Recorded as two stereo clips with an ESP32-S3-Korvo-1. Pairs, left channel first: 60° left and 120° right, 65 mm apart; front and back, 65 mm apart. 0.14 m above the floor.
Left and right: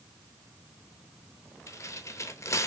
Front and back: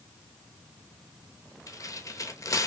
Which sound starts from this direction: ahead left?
Tearing paper, at 1.7 s.